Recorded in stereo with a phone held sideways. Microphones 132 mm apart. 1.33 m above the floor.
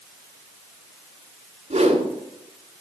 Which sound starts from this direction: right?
A whoosh, at 1.7 s.